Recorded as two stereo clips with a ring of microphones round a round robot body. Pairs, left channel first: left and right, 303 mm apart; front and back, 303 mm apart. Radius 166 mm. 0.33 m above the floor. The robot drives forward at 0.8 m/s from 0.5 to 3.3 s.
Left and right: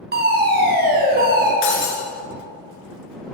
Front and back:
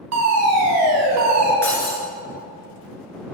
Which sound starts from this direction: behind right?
A fire alarm, at 0.1 s.